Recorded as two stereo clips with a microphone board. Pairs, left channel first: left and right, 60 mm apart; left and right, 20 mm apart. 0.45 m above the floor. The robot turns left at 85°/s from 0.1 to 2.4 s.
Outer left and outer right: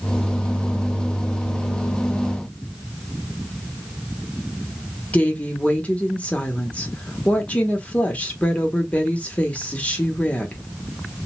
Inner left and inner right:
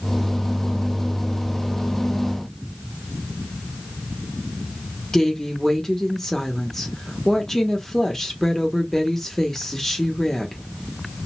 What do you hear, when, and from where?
5.1 s a woman speaking: 20° left (ahead or behind), 1.0 m